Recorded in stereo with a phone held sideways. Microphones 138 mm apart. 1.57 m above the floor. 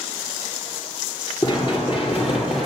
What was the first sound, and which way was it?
Running footsteps, 35° left (ahead or behind).